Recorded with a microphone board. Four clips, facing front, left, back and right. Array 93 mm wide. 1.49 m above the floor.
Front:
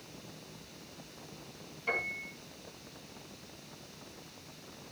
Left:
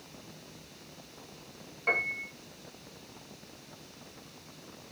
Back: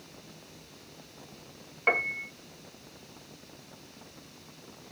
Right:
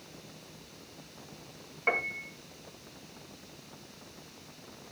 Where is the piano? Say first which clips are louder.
Right 1 dB, back 7 dB; 160° right, 2 m.